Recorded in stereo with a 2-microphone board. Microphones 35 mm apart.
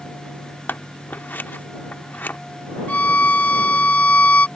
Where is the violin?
50° left (ahead or behind).